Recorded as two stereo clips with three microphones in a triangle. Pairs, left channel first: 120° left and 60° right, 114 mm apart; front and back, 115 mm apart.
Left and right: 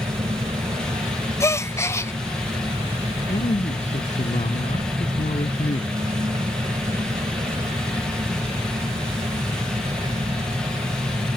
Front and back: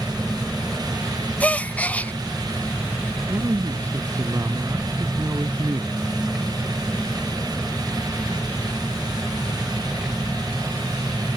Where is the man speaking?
120° left.